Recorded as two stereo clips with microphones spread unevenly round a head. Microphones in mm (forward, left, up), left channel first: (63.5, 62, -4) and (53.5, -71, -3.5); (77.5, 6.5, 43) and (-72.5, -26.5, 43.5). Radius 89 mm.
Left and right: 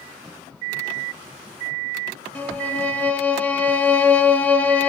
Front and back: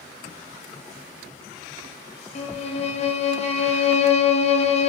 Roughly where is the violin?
Ahead.